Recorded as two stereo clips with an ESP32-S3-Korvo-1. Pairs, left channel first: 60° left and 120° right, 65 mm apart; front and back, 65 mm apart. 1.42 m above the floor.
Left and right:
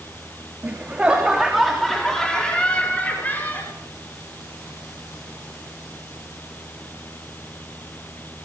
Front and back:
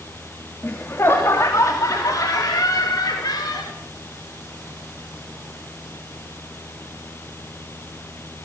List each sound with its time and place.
0.6 s laughter: 55° right, 3.5 m; by 3.7 s straight ahead, 5 m